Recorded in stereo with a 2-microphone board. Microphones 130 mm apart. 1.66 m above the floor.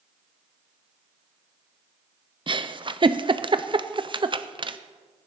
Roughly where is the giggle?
Right.